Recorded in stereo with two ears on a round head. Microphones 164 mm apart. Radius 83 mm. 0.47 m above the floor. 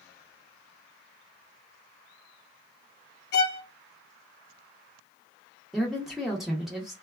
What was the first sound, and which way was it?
A violin, 60° left (ahead or behind).